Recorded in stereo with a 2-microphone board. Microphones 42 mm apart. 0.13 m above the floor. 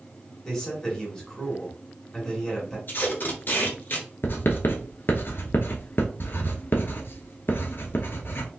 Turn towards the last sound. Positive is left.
turn(degrees=55)  # may be behind; listen again after turning